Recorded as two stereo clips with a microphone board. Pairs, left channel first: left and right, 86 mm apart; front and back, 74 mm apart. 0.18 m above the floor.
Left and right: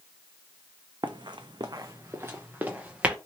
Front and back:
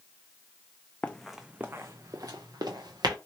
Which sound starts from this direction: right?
Running footsteps, at 1.0 s.